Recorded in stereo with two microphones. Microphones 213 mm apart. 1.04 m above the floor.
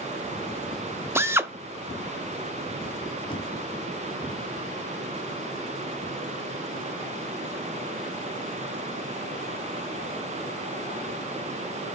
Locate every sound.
1.1 s a drill: 10° right (ahead or behind), 0.7 m
3.3 s knocking: 25° left (ahead or behind), 1.9 m